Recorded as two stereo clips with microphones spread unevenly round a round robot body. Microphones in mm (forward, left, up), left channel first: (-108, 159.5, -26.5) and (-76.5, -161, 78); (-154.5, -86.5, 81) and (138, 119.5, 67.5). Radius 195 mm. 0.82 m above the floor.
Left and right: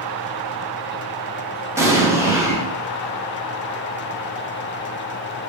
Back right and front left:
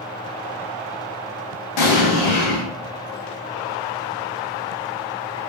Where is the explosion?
150° right, 0.6 m.